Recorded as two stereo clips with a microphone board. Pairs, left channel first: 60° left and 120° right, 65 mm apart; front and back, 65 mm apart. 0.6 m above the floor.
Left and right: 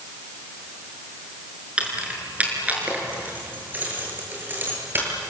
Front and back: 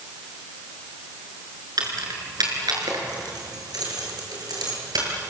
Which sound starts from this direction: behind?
Keys jangling, at 1.8 s.